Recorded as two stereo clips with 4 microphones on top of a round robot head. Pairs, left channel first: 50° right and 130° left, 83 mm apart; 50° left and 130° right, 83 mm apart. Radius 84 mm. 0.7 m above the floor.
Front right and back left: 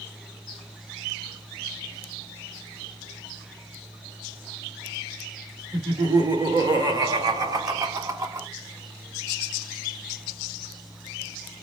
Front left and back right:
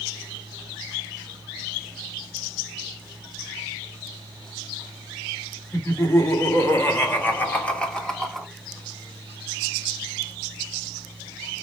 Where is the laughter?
100° left, 2.5 m; by 8.5 s 140° left, 1.2 m.